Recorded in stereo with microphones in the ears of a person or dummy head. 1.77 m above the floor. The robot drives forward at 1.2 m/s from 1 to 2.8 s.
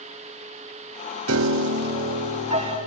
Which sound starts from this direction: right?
A piano, at 1.3 s.